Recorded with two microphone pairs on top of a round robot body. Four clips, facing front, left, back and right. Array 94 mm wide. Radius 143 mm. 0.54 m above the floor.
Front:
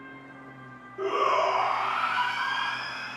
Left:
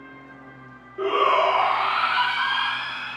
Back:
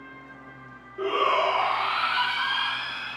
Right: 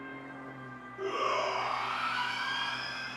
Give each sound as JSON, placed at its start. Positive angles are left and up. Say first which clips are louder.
{"t": 1.0, "sound": "a shout", "louder": "left 12 dB, back 1 dB", "azimuth_deg": 85, "distance_m": 1.7}